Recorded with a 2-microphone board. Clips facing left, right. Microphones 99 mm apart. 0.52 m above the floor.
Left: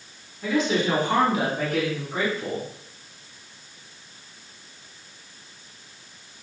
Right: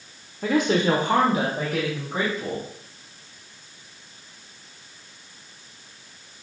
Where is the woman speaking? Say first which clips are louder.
Right 2 dB; 55° right (ahead or behind), 1.1 m; by 2.6 s 25° right (ahead or behind), 2.5 m.